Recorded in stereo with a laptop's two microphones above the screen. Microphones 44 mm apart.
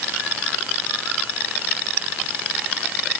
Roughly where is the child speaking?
No child speaking in this recording.